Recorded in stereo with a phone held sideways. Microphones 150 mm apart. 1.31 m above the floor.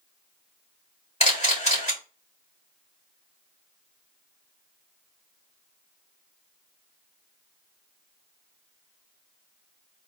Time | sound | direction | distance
1.2 | a camera shutter | 50° left (ahead or behind) | 2.5 m